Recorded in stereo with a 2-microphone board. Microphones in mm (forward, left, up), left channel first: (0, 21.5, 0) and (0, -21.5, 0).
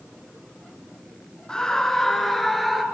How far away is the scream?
About 1.4 m.